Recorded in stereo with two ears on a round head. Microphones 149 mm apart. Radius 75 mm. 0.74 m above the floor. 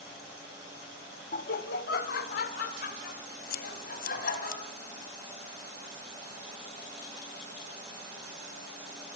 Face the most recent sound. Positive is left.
turn(degrees=55)  # may be behind; listen again after turning